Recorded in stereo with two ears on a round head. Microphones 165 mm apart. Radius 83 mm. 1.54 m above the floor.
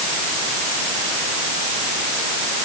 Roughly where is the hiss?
I don't hear a hiss.